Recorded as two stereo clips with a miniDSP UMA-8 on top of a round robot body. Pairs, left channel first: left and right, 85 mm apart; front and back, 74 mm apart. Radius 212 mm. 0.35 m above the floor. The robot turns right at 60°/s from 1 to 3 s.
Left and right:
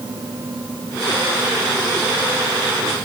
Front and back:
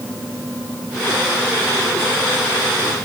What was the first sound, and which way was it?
Only background noise.